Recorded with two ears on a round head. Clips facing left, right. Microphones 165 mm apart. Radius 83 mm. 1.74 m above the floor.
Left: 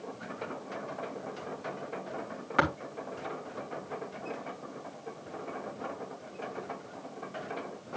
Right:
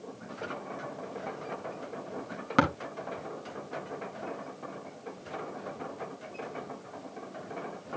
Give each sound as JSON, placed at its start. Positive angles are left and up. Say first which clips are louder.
{"t": 2.6, "sound": "tapping", "louder": "right 3 dB", "side_deg": -55, "distance_m": 3.0}